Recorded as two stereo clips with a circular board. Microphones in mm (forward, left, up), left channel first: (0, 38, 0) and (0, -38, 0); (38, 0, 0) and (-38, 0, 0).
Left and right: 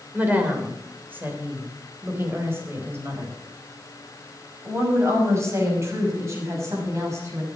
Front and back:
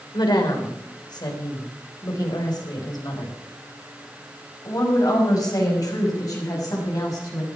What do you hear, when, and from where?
0.1 s a woman speaking: 20° right, 3.5 m; by 7.5 s 40° right, 7 m